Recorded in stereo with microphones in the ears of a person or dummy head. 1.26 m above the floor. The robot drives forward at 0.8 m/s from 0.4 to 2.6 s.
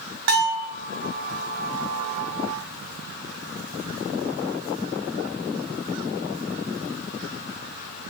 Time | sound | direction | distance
0.3 | a bell | 65° right (ahead or behind) | 4.5 m